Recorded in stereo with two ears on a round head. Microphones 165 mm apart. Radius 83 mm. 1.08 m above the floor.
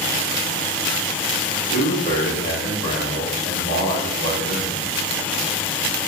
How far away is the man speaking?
About 1.9 m.